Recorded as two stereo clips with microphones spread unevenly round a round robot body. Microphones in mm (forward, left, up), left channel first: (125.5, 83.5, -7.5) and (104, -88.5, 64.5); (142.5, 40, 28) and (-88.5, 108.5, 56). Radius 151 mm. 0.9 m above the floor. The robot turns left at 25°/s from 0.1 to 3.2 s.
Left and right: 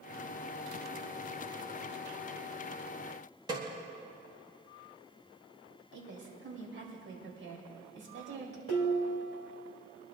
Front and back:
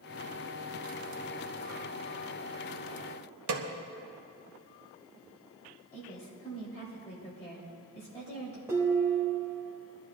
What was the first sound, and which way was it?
A snare drum, straight behind.